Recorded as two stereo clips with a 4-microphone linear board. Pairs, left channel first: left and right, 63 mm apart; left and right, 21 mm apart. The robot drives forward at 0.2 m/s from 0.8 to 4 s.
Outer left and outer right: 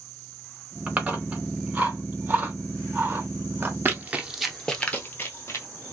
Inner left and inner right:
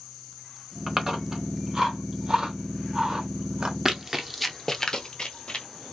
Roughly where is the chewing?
Right.